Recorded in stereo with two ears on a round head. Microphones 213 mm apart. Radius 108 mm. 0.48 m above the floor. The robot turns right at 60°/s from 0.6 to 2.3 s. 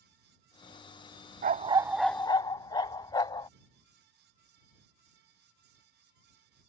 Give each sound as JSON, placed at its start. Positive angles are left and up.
{"t": 1.4, "sound": "a dog barking", "azimuth_deg": -35}